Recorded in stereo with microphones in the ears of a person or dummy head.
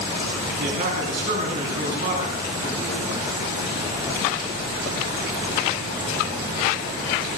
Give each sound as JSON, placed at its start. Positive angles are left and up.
{"t": 0.6, "sound": "a man speaking", "side_deg": -50, "distance_m": 4.0}